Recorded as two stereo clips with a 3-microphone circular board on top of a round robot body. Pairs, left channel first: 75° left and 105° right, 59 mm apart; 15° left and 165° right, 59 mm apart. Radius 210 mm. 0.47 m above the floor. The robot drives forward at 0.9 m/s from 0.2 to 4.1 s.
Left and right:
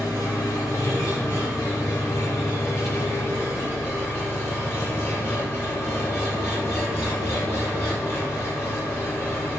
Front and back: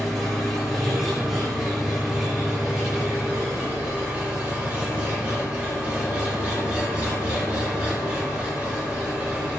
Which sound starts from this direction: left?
An engine running, at 0.0 s.